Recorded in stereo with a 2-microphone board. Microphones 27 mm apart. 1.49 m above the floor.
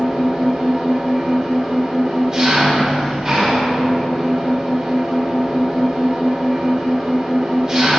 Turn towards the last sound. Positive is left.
turn(degrees=-25)  # may be behind; listen again after turning